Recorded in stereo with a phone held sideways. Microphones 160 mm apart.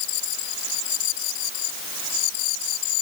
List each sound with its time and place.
Only background noise.